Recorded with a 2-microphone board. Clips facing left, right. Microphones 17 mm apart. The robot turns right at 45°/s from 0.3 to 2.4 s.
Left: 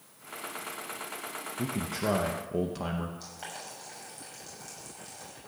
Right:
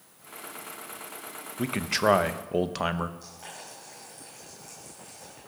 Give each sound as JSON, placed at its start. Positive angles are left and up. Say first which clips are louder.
{"t": 1.6, "sound": "a man speaking", "louder": "right 7 dB", "azimuth_deg": -85, "distance_m": 0.7}
{"t": 3.2, "sound": "boiling", "louder": "left 2 dB", "side_deg": 35, "distance_m": 6.0}